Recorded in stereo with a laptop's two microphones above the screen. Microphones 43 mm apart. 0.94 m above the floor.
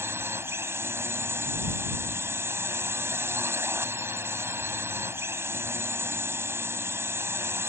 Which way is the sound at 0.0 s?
80° right.